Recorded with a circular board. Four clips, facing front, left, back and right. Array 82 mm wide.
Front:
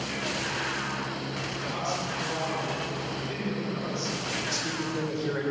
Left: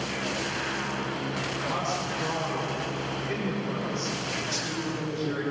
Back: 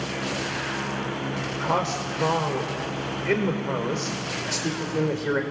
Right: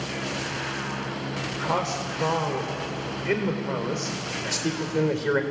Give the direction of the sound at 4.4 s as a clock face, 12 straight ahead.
4 o'clock.